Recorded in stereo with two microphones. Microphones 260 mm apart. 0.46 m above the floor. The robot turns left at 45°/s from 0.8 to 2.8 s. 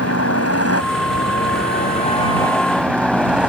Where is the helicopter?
85° left; by 3.5 s 5° right.